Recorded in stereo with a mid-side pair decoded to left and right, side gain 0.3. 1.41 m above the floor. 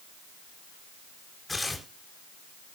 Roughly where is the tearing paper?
Ahead left.